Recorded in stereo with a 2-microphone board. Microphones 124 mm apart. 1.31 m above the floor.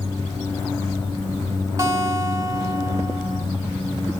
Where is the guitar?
30° right (ahead or behind), 1.7 m.